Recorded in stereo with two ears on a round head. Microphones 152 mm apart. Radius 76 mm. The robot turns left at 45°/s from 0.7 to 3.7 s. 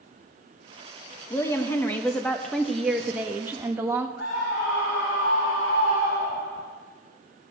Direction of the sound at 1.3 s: 15° left (ahead or behind).